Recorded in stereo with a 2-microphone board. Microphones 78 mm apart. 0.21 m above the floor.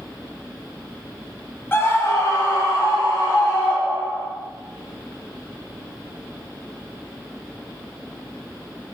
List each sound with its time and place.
1.7 s a scream: 30° left (ahead or behind), 1.6 m; by 4.3 s 50° left (ahead or behind), 3.5 m